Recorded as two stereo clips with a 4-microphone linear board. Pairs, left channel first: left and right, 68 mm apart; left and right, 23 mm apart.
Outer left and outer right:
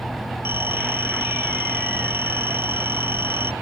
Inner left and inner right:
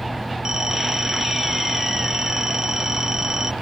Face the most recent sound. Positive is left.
turn(degrees=-35)  # may be behind; listen again after turning